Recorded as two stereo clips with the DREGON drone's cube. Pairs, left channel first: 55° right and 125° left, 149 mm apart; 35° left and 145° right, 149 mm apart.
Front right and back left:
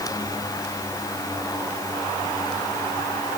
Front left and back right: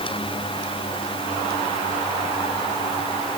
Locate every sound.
Only background noise.